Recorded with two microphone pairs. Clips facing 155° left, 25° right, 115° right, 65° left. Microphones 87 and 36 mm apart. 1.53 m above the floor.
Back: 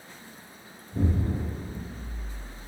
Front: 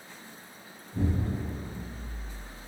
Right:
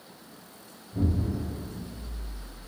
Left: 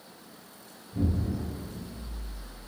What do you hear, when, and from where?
0.9 s an explosion: 125° left, 1.5 m